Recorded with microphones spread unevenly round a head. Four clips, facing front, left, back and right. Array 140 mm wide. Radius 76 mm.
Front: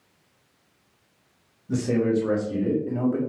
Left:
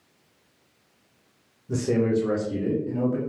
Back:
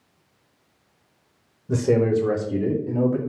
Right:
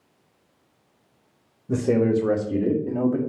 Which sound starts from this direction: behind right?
A man speaking, at 1.7 s.